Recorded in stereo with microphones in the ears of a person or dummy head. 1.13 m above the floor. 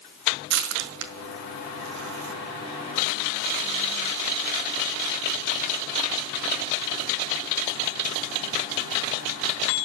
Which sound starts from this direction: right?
Crushing, at 0.5 s.